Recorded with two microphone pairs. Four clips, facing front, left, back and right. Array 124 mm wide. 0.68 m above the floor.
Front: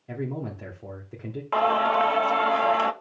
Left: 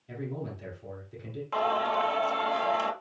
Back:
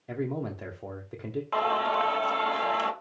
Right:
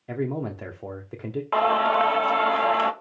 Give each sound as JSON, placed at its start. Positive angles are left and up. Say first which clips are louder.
{"t": 0.1, "sound": "a man speaking", "louder": "right 9 dB, even", "azimuth_deg": -115, "distance_m": 1.2}
{"t": 1.5, "sound": "singing", "louder": "right 6 dB, front 5 dB", "azimuth_deg": -60, "distance_m": 0.9}